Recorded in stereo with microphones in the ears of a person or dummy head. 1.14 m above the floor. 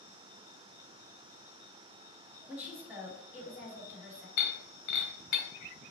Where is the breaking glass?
55° left (ahead or behind), 1.1 m.